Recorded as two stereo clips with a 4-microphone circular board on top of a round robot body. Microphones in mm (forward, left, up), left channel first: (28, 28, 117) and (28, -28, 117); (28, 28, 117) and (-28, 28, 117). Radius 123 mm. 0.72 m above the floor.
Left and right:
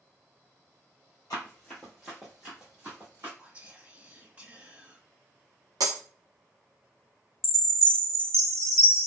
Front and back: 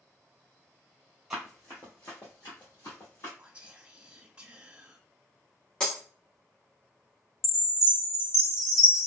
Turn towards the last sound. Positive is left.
turn(degrees=5)